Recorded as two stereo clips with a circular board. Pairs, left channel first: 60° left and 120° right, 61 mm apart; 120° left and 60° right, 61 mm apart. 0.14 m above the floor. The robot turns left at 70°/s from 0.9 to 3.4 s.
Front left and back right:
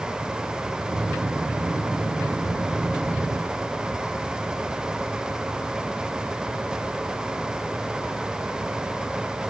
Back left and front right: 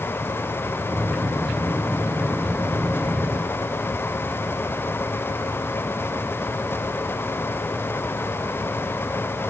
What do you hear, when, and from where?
Only background noise.